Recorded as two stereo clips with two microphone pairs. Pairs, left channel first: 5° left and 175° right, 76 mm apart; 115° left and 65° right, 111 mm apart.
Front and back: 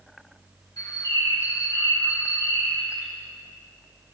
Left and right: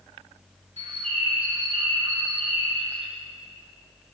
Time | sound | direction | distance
0.8 | a bird | 40° right | 2.5 m